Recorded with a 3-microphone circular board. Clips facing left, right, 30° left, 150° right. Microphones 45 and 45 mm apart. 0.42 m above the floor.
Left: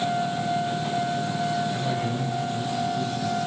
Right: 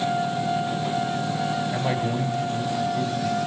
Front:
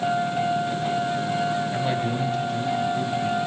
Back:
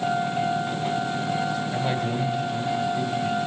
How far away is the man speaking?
About 1.7 m.